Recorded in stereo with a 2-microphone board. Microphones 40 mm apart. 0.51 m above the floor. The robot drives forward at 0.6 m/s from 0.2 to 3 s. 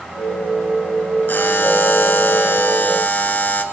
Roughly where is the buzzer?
Left.